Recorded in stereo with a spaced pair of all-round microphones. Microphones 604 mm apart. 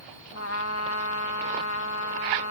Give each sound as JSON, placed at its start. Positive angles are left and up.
{"t": 0.3, "sound": "a trumpet", "side_deg": 25}